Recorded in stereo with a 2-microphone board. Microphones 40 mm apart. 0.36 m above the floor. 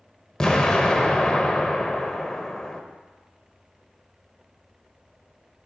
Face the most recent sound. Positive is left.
turn(degrees=15)  # may be behind; listen again after turning